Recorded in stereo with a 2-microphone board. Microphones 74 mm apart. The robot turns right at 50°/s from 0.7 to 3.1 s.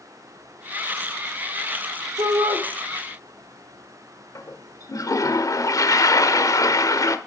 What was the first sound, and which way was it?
A shout, 75° right (ahead or behind).